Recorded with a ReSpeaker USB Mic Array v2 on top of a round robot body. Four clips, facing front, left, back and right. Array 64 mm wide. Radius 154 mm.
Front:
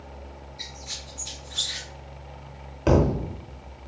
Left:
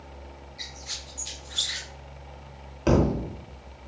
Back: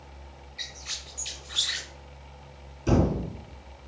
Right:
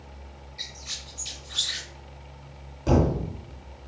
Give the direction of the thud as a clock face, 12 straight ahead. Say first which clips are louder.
Even, front 3 dB; 11 o'clock.